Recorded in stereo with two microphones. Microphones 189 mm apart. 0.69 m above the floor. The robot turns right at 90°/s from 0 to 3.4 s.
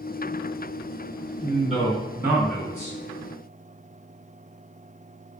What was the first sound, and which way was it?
A man speaking, 95° right.